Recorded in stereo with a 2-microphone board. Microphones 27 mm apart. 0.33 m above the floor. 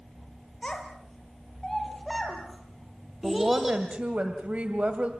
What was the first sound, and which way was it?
A child speaking, 25° left (ahead or behind).